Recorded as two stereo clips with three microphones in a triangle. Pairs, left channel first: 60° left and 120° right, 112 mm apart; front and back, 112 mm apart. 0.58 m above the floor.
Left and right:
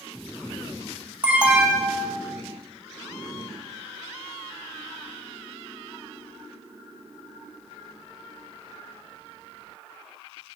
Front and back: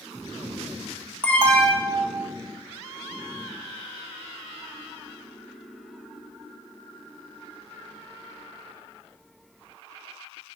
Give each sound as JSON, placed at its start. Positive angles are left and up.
{"t": 1.2, "sound": "an alarm", "azimuth_deg": -60, "distance_m": 0.5}